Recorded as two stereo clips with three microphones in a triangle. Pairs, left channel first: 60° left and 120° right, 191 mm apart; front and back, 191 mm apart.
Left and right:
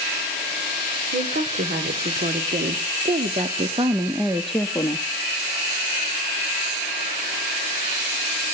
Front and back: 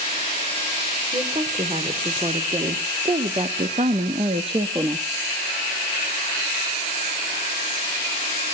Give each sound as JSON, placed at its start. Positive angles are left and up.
{"t": 1.1, "sound": "a woman speaking", "azimuth_deg": -120, "distance_m": 2.0}